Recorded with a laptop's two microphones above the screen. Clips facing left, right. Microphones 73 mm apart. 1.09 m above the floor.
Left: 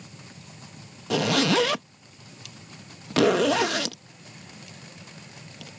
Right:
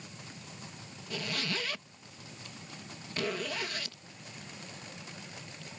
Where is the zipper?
75° left (ahead or behind).